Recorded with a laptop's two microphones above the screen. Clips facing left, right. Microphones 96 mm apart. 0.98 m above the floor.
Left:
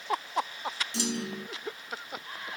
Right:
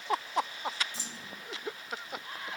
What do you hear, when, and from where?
0.9 s a clunk: 70° left (ahead or behind)